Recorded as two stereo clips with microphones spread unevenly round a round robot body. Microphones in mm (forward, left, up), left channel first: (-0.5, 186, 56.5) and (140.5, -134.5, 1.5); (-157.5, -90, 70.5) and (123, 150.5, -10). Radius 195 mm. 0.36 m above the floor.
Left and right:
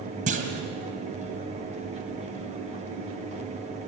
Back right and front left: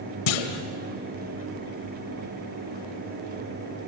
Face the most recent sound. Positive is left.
turn(degrees=-130)